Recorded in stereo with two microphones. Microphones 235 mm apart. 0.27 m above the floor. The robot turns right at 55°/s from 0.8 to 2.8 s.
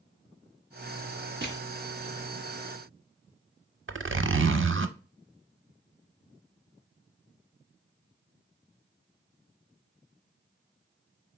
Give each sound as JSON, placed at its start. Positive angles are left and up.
{"t": 1.4, "sound": "crushing", "side_deg": -50, "distance_m": 1.7}
{"t": 3.9, "sound": "a zipper", "side_deg": -55, "distance_m": 0.5}